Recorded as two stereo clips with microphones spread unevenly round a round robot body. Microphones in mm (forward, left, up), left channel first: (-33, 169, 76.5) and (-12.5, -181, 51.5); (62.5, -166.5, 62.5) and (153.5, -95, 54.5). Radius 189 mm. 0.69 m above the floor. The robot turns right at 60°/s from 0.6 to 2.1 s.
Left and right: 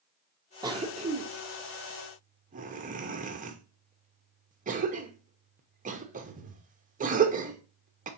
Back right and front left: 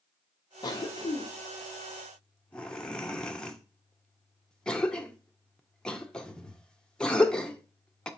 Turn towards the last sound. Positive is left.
turn(degrees=-55)